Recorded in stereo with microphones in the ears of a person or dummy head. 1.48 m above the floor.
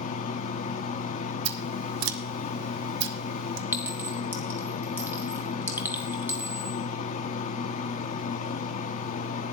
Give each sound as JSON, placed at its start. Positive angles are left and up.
{"t": 0.0, "sound": "a fan", "side_deg": 40, "distance_m": 0.9}
{"t": 1.4, "sound": "scissors", "side_deg": -70, "distance_m": 1.1}
{"t": 3.7, "sound": "a clink", "side_deg": -10, "distance_m": 1.0}